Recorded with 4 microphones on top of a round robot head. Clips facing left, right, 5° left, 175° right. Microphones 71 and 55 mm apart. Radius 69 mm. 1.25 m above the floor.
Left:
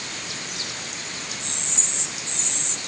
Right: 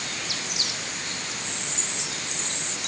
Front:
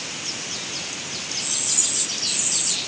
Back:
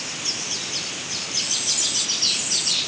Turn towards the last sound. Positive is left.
No sound to turn to.